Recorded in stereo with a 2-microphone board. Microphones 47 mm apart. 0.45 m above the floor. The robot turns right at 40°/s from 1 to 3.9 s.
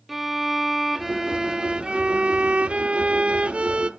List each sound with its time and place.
0.1 s a violin: 5° right (ahead or behind), 0.6 m; by 3.9 s 20° right (ahead or behind), 0.6 m